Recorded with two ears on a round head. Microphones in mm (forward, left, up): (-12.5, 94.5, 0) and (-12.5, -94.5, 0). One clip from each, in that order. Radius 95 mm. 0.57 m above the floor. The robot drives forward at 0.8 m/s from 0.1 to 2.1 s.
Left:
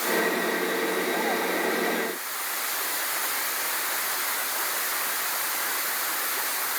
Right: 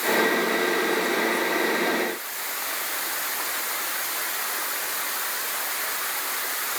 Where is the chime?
No chime in this recording.